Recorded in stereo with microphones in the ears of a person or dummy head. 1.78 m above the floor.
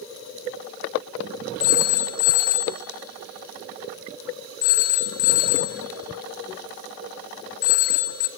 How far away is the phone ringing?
About 1.2 m.